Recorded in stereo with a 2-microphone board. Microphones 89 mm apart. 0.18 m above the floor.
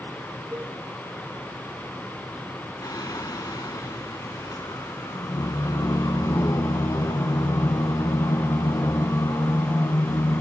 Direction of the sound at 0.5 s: 30° right (ahead or behind).